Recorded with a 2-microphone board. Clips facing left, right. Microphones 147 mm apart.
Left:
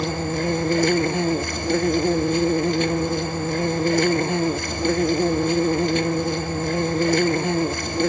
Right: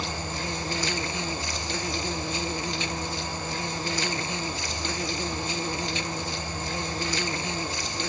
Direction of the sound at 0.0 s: 55° left (ahead or behind).